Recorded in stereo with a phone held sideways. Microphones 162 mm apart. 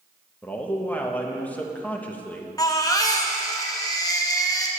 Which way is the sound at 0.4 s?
10° left (ahead or behind).